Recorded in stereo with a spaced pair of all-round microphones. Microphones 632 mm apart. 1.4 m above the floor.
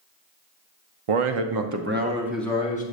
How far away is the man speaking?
About 0.7 m.